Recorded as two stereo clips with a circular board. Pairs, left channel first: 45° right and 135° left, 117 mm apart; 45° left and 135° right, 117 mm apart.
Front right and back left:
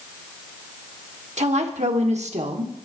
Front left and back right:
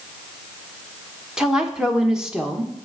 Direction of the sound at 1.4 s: 140° left.